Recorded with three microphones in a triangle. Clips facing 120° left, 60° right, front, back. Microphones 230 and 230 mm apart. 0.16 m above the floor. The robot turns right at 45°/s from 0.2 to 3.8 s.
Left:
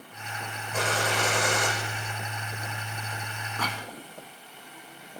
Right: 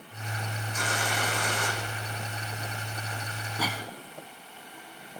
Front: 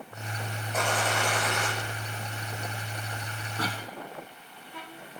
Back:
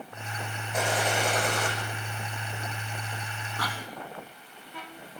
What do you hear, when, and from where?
0.7 s a gunshot: 90° left, 6 m; by 1.7 s 135° left, 6 m
3.6 s a cough: 5° left, 1.4 m; by 3.9 s 15° left, 1.4 m